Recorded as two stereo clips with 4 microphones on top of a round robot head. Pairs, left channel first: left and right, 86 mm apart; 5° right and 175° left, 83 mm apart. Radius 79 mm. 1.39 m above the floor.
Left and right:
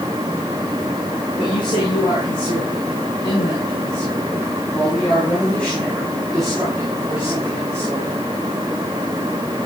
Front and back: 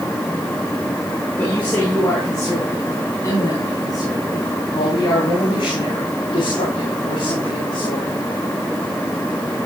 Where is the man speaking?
60° left, 5.5 m; by 8.1 s 25° right, 4.5 m.